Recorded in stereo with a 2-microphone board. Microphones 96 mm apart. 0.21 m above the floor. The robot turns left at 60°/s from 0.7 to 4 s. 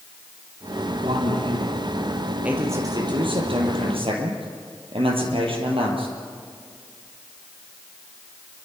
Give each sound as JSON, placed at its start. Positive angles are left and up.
{"t": 1.0, "sound": "a man speaking", "azimuth_deg": -75, "distance_m": 4.0}
{"t": 2.4, "sound": "a man speaking", "azimuth_deg": -15, "distance_m": 5.5}